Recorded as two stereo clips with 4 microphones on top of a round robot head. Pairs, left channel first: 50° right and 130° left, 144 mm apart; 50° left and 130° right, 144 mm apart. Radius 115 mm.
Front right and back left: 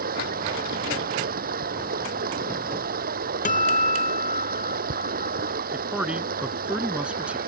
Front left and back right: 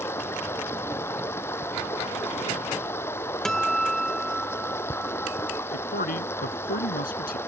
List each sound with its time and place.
0.0 s running water: 125° left
3.5 s a guitar: 35° right
5.7 s a man speaking: 45° left